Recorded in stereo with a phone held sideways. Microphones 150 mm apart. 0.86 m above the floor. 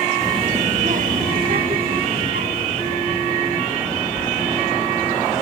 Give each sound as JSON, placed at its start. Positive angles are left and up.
{"t": 0.2, "sound": "a child speaking", "side_deg": -20, "distance_m": 0.7}